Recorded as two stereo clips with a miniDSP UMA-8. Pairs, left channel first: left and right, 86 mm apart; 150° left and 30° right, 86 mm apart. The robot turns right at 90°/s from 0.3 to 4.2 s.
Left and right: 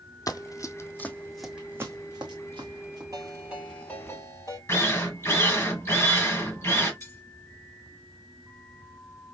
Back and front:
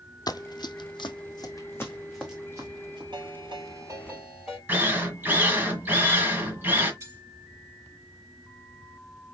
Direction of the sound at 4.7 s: 35° left.